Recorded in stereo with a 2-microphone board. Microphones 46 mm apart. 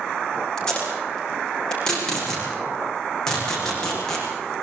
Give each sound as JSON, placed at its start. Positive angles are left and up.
{"t": 0.6, "sound": "tape being pulled", "side_deg": 15, "distance_m": 8.0}